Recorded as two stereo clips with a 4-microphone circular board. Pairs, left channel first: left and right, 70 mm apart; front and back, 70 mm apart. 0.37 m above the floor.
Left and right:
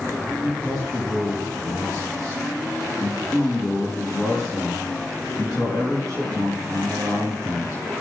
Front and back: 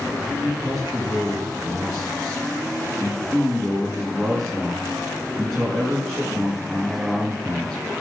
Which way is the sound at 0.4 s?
90° left.